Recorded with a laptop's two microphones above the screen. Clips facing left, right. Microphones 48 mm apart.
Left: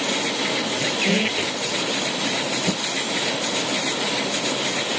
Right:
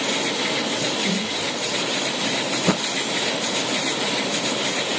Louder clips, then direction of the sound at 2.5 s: Right 3 dB; 60° right (ahead or behind).